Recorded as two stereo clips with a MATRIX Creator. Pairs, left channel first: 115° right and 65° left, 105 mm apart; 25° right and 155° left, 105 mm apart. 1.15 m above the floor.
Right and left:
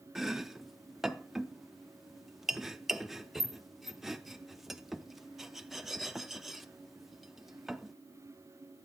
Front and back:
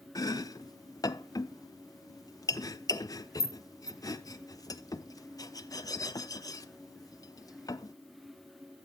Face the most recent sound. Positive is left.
turn(degrees=-20)